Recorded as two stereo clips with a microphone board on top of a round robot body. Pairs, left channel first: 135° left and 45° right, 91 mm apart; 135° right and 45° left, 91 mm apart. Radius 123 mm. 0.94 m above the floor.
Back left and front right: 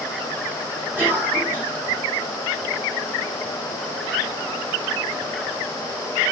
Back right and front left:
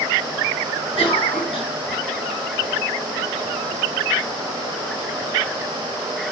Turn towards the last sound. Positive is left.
turn(degrees=-115)